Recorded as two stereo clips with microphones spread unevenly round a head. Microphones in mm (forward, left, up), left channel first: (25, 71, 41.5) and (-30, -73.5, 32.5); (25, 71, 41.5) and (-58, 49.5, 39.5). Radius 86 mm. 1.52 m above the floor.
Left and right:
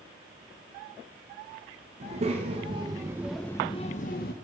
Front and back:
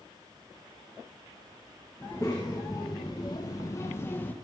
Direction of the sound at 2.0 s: 60° right.